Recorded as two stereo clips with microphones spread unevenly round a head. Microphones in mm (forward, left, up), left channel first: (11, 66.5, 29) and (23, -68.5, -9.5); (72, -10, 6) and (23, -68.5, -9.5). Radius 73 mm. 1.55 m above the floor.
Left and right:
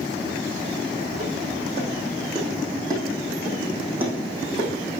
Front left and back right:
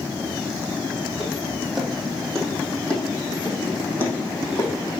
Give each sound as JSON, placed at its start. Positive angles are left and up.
{"t": 1.1, "sound": "footsteps", "azimuth_deg": -40, "distance_m": 3.0}